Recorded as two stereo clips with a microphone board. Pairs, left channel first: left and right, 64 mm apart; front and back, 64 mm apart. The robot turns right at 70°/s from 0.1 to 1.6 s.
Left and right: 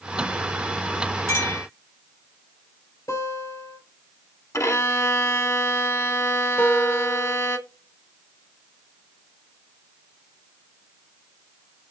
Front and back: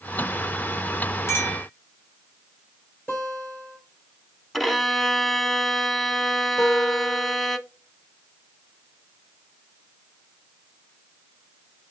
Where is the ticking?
No ticking in this recording.